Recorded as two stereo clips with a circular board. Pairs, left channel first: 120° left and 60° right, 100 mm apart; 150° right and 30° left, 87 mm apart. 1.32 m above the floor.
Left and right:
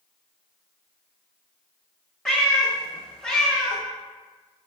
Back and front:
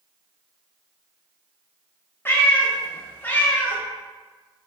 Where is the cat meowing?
165° right, 0.6 m.